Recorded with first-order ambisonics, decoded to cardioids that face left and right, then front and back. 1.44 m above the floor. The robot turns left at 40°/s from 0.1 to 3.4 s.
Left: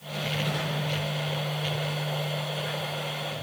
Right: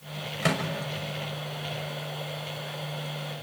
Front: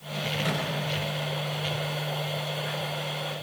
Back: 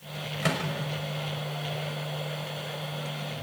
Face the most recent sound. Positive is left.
turn(degrees=120)